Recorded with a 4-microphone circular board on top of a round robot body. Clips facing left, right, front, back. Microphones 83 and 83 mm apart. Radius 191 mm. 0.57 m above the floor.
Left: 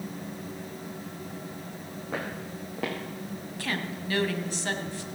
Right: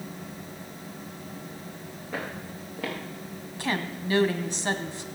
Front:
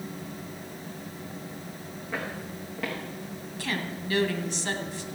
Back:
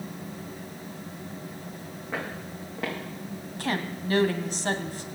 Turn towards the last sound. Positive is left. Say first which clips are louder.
# right 4 dB, back 3 dB
turn(degrees=-155)